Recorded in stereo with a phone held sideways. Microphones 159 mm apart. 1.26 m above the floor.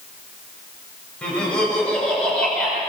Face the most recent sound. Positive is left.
turn(degrees=5)  # may be behind; listen again after turning